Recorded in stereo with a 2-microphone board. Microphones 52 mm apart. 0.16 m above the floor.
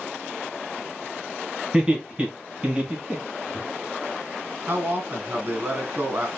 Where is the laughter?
20° right (ahead or behind), 1.7 m.